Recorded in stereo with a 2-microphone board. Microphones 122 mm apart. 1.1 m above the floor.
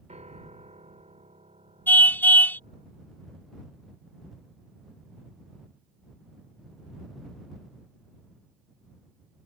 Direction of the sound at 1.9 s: 15° left (ahead or behind).